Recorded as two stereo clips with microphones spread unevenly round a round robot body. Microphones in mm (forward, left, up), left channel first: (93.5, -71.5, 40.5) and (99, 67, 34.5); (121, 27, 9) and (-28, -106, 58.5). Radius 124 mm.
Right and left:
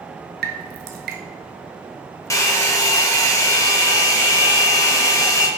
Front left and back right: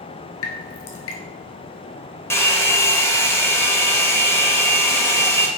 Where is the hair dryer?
25° right, 1.4 m.